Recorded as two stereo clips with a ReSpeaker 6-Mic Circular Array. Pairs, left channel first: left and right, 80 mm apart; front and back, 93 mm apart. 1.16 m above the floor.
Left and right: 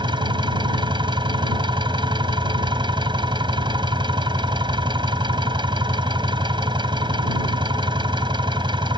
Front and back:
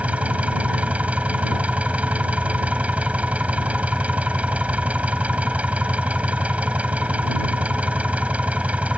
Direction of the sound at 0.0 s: 105° right.